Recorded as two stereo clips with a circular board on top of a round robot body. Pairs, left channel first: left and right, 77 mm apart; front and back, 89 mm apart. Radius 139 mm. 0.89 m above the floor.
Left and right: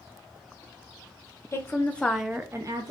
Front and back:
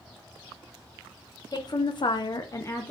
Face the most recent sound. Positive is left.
turn(degrees=-70)